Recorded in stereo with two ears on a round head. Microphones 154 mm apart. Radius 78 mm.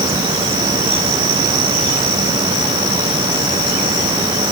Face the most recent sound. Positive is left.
No sound to turn to.